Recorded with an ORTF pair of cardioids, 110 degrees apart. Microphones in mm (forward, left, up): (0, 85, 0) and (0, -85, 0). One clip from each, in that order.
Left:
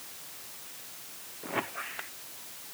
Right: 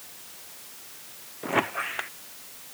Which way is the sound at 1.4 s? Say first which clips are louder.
Right 8 dB; 45° right.